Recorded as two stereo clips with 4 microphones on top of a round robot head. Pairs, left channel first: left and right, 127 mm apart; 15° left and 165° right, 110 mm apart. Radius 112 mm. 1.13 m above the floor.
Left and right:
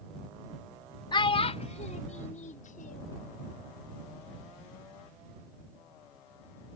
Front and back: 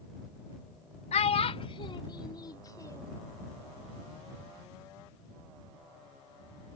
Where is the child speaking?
35° left; by 3.2 s 75° left.